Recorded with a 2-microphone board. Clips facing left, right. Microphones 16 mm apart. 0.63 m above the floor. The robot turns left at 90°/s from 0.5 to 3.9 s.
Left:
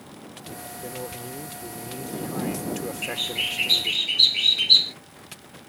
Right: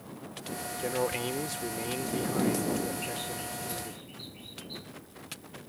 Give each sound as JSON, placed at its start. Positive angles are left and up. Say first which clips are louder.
{"t": 0.8, "sound": "a man speaking", "louder": "right 6 dB", "azimuth_deg": -35}
{"t": 3.0, "sound": "a bird", "louder": "left 10 dB", "azimuth_deg": 155}